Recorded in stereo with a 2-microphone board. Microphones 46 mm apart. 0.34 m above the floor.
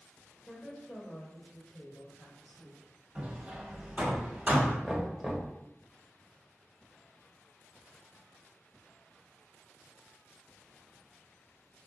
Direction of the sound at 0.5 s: 20° left (ahead or behind).